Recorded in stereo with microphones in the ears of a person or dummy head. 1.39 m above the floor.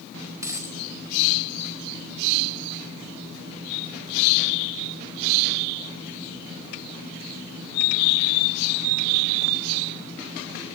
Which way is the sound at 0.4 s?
10° right (ahead or behind).